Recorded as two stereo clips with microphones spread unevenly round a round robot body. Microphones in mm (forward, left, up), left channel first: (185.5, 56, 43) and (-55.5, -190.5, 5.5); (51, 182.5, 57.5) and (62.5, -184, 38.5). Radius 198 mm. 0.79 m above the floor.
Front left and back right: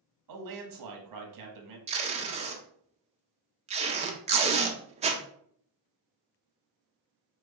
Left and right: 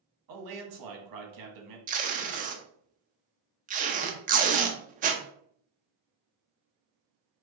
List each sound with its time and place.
0.3 s a man speaking: 120° right, 1.0 m
1.9 s tape being pulled: 110° right, 0.5 m